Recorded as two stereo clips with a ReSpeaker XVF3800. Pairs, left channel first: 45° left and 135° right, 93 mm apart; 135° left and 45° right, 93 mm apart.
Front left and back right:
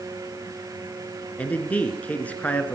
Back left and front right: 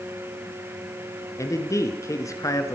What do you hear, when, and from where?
1.4 s a man speaking: 110° left, 1.4 m